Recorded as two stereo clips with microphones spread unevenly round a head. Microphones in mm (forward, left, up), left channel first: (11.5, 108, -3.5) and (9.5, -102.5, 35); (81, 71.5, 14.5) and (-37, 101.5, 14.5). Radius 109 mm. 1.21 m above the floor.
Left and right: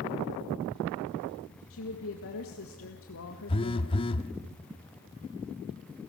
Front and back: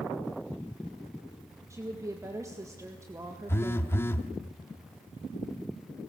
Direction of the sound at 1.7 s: 100° left.